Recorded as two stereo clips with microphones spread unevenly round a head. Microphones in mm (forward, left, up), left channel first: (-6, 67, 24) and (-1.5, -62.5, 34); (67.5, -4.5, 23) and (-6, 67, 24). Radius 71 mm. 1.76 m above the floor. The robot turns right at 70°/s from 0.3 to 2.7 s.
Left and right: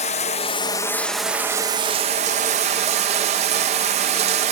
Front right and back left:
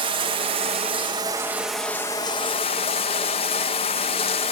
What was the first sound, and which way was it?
Running water, 125° left.